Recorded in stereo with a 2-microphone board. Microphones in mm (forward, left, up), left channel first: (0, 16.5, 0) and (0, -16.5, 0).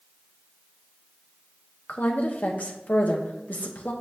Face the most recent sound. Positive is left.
turn(degrees=55)  # may be behind; listen again after turning